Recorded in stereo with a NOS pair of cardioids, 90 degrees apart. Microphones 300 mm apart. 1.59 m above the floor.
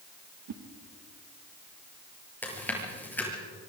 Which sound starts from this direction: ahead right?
A whoosh, at 0.5 s.